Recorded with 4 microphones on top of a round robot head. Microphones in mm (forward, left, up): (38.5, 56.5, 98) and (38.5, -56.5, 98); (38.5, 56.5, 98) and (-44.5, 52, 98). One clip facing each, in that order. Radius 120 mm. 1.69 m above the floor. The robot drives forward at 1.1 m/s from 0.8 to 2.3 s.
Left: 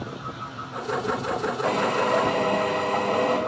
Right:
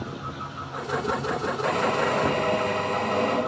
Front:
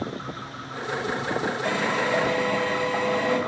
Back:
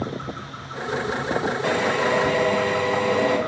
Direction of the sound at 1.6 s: 155° left.